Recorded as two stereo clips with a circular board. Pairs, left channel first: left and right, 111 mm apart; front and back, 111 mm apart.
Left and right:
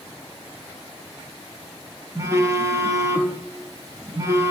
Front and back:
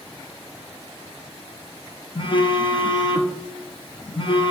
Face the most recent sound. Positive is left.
turn(degrees=-30)